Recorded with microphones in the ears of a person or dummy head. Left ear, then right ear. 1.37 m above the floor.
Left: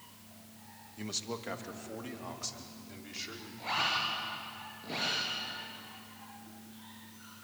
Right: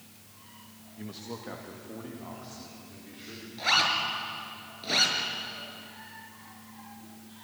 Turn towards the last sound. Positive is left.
turn(degrees=-65)  # may be behind; listen again after turning